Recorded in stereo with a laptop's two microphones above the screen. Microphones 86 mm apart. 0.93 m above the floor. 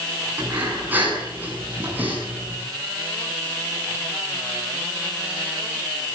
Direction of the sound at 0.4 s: 20° right (ahead or behind).